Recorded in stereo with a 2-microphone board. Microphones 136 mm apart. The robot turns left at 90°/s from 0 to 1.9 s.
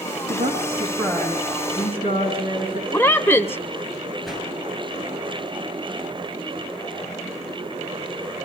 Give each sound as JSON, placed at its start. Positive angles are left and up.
{"t": 0.3, "sound": "a woman speaking", "azimuth_deg": -75, "distance_m": 3.5}
{"t": 2.9, "sound": "a woman speaking", "side_deg": 15, "distance_m": 0.9}
{"t": 4.2, "sound": "a whoosh", "side_deg": 0, "distance_m": 7.5}